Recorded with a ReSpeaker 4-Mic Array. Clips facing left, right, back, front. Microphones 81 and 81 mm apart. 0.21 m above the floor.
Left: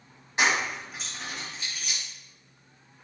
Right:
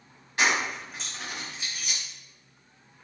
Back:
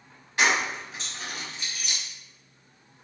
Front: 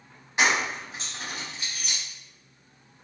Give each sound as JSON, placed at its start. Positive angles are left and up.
{"t": 0.4, "sound": "keys jangling", "azimuth_deg": 50, "distance_m": 0.9}